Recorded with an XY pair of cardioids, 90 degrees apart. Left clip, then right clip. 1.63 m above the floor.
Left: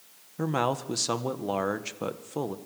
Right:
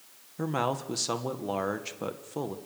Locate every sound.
0.4 s a man speaking: 20° left, 1.5 m